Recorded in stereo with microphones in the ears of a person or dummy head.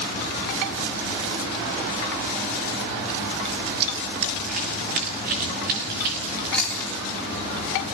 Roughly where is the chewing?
Centre.